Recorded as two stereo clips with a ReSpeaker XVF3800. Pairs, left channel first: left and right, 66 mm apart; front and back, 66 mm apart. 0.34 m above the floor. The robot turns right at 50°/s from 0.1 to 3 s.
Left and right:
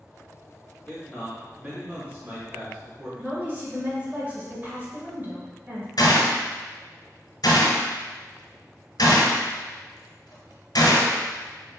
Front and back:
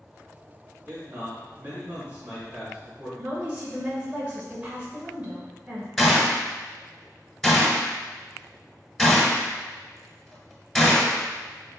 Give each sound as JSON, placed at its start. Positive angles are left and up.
{"t": 0.9, "sound": "a man speaking", "azimuth_deg": 165, "distance_m": 1.6}
{"t": 3.2, "sound": "a woman speaking", "azimuth_deg": -125, "distance_m": 1.0}
{"t": 6.0, "sound": "a gunshot", "azimuth_deg": 85, "distance_m": 1.1}